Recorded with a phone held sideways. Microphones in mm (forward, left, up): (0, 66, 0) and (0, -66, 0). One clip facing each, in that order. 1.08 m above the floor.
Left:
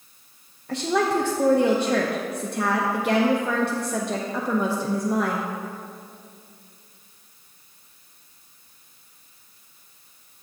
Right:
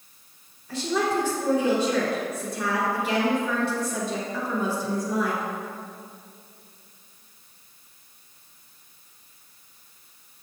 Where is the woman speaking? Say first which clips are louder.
Left 3 dB; 60° left (ahead or behind), 0.7 m.